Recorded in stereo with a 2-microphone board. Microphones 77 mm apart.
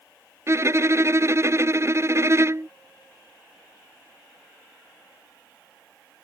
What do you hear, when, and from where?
0.5 s a violin: 40° right (ahead or behind)